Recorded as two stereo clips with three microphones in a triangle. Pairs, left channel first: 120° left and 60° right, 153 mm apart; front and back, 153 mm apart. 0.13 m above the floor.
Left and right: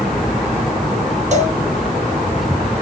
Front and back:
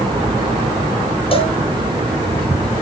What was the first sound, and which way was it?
A cowbell, 40° right.